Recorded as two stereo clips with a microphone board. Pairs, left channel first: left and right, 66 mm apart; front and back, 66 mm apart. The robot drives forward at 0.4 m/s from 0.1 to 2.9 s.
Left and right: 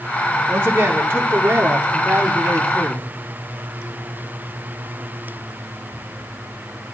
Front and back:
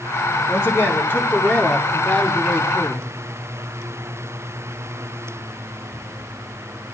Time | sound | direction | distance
0.5 | a man speaking | 40° right | 1.8 m